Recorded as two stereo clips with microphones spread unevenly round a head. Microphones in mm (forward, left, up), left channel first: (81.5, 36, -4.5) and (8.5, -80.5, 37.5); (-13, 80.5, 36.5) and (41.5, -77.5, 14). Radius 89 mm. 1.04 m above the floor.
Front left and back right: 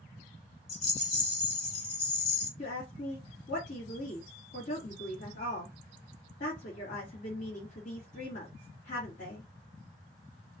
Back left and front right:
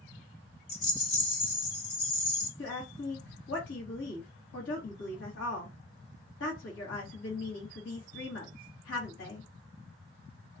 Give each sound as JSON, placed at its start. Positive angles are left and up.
{"t": 0.7, "sound": "a rattle", "azimuth_deg": 105, "distance_m": 1.1}
{"t": 2.6, "sound": "a woman speaking", "azimuth_deg": 90, "distance_m": 1.3}